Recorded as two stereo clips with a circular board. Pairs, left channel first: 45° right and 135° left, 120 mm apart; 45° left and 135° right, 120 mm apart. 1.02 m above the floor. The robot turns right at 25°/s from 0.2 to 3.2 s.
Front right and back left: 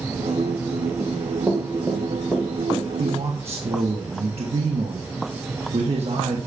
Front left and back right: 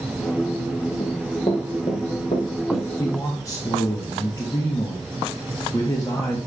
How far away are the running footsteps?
About 1.8 m.